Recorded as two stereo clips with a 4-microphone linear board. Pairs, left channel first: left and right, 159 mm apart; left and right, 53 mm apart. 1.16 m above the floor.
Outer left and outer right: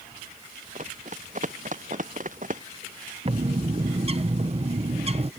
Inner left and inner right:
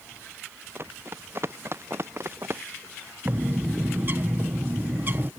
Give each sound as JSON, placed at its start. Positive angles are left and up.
{"t": 0.8, "sound": "running footsteps", "side_deg": -50}
{"t": 3.2, "sound": "a bird", "side_deg": -40}